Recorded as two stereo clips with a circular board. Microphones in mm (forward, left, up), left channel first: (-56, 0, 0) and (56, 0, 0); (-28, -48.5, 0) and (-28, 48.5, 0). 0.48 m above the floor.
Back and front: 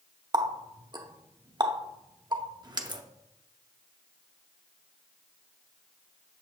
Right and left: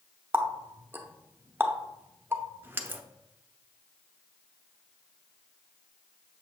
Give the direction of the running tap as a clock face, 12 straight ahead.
11 o'clock.